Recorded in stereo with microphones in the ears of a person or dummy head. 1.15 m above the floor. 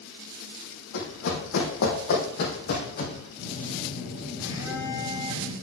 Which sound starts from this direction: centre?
A phone buzzing, at 3.4 s.